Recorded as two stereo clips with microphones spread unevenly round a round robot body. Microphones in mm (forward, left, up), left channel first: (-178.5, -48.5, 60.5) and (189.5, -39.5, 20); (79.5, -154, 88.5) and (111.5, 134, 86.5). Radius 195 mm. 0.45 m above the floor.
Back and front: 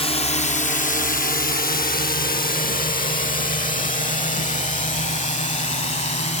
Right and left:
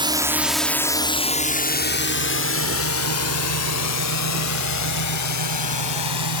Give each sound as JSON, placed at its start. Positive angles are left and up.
{"t": 0.0, "sound": "a drone", "azimuth_deg": 120}